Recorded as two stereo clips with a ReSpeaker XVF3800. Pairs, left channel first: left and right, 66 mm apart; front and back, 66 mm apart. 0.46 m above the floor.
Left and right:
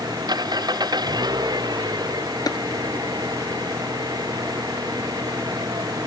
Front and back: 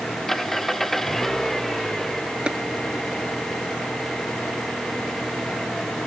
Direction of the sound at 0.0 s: 85° right.